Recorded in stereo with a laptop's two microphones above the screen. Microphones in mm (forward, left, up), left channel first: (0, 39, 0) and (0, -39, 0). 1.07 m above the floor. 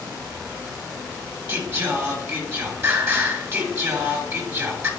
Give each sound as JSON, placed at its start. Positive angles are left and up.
{"t": 1.5, "sound": "singing", "side_deg": -35, "distance_m": 3.5}